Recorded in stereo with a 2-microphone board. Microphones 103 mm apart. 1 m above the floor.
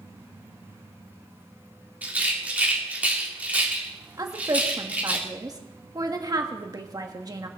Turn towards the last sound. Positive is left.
turn(degrees=-35)  # may be behind; listen again after turning